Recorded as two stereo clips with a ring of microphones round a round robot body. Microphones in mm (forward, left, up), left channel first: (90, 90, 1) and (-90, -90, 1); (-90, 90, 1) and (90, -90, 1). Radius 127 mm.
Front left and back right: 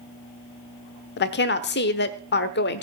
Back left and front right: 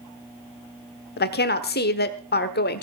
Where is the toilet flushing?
No toilet flushing in this recording.